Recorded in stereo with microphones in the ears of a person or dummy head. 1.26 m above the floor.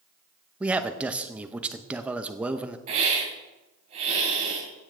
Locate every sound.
0.6 s a man speaking: 15° right (ahead or behind), 0.8 m
2.9 s a hiss: 45° right (ahead or behind), 3.5 m